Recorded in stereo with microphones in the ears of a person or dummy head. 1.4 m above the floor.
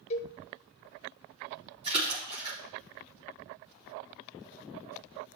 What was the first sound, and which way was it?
A cowbell, 35° left (ahead or behind).